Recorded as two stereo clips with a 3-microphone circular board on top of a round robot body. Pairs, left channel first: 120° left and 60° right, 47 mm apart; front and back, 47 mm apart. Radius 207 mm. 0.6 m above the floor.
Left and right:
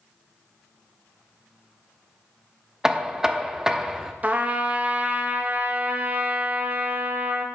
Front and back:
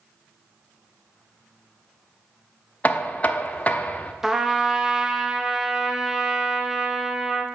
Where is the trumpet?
100° right, 0.9 m.